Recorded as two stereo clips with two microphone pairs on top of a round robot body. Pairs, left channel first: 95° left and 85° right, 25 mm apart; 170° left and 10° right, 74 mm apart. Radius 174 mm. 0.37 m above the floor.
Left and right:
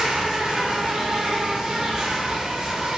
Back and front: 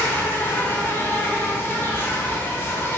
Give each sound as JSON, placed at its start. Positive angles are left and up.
{"t": 0.0, "sound": "an insect", "azimuth_deg": -150, "distance_m": 0.8}